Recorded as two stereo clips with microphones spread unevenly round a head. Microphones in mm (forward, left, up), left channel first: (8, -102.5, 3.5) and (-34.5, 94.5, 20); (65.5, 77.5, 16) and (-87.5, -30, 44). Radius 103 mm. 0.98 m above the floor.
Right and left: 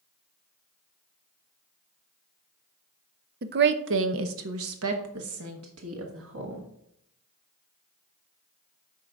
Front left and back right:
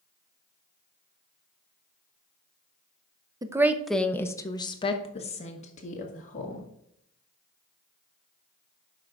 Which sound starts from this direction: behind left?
A woman speaking, at 3.4 s.